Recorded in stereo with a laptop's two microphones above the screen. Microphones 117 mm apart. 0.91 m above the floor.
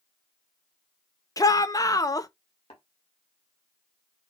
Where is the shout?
30° left (ahead or behind), 0.6 m.